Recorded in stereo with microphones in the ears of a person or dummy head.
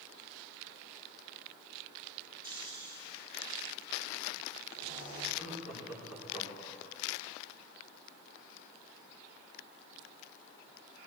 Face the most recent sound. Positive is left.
turn(degrees=-15)  # may be behind; listen again after turning